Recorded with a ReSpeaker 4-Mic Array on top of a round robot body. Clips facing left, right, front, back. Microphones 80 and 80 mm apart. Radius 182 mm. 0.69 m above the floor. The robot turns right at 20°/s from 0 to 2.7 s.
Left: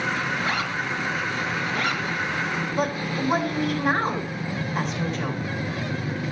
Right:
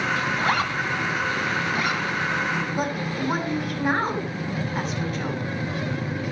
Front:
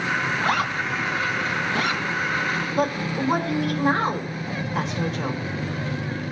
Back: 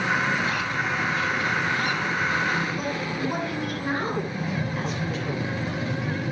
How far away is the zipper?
About 2 m.